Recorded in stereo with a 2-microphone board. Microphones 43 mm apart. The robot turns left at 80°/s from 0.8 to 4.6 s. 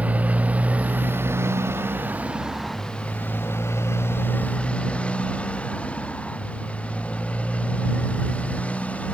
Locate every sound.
0.0 s a motorcycle: 35° right (ahead or behind); by 9.2 s 30° left (ahead or behind)